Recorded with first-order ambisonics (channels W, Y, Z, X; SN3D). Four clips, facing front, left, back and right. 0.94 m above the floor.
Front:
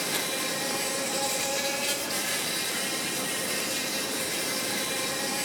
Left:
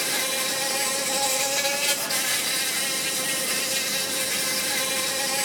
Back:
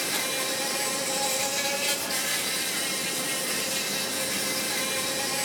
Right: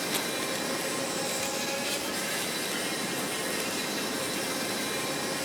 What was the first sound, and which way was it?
An insect, 95° left.